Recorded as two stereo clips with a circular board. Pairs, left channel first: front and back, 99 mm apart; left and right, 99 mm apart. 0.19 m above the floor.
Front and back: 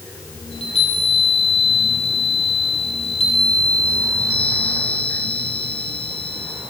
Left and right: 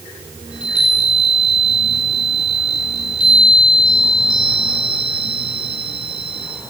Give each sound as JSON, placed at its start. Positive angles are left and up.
{"t": 0.5, "sound": "a chime", "azimuth_deg": -10, "distance_m": 5.0}